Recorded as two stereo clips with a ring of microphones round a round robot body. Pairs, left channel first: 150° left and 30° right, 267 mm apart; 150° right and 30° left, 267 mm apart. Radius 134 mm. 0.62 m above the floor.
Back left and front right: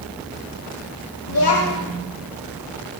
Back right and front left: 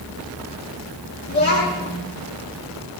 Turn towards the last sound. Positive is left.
turn(degrees=155)